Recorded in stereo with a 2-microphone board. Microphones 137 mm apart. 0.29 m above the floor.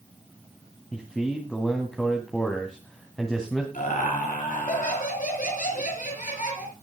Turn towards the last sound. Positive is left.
turn(degrees=75)  # may be behind; listen again after turning